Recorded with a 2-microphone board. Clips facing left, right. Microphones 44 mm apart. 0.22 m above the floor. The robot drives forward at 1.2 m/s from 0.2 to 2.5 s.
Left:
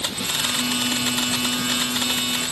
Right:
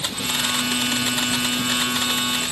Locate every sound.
Only background noise.